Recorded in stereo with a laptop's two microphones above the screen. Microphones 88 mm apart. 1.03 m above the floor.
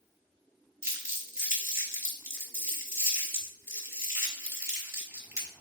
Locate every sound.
0.8 s crumpling: 30° right (ahead or behind), 4 m